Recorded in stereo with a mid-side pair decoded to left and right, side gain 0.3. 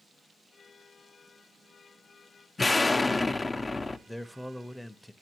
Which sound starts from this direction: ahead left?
An explosion, at 2.6 s.